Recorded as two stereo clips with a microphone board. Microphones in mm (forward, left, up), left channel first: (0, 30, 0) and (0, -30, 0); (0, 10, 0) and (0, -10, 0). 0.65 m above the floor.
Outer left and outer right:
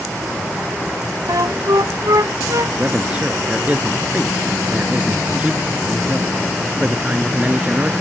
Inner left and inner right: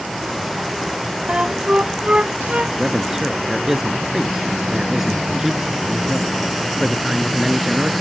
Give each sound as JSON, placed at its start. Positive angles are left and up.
{"t": 1.3, "sound": "a flute", "side_deg": -80}
{"t": 2.8, "sound": "a man speaking", "side_deg": -25}